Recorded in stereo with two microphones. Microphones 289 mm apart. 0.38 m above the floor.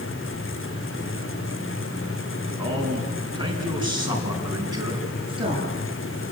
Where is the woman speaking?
20° right (ahead or behind), 8 m.